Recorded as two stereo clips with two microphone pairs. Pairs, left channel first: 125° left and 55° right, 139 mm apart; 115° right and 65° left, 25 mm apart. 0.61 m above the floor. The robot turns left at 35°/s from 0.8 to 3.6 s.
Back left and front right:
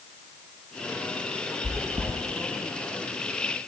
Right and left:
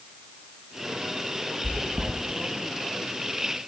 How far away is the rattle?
I don't hear a rattle.